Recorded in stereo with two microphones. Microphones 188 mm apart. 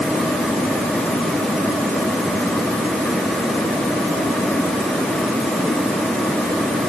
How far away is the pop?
I don't hear a pop.